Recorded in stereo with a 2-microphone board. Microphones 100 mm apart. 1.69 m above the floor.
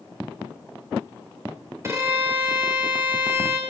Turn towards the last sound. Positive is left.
turn(degrees=-30)  # may be behind; listen again after turning